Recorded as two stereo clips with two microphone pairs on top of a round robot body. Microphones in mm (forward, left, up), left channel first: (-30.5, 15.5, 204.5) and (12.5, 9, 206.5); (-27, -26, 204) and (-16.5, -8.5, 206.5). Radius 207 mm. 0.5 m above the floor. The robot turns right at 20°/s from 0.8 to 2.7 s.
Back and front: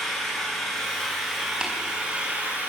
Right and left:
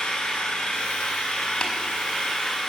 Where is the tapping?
80° right, 4.5 m; by 1.7 s 75° right, 4.5 m.